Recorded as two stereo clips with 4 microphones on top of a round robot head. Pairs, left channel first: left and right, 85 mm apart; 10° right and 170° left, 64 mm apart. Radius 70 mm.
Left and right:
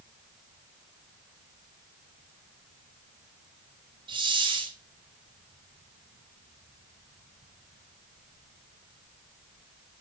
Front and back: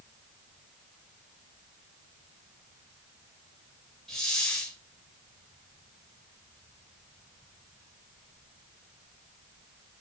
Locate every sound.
4.1 s a hiss: 90° right, 2.5 m